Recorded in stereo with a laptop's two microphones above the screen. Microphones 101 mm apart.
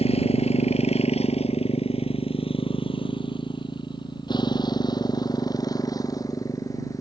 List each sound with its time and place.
0.0 s a motorcycle: 75° left (ahead or behind); by 7.0 s 30° left (ahead or behind)